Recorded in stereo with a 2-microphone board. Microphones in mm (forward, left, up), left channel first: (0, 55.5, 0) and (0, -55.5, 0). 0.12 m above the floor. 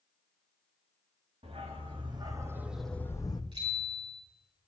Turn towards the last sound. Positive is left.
turn(degrees=-55)  # may be behind; listen again after turning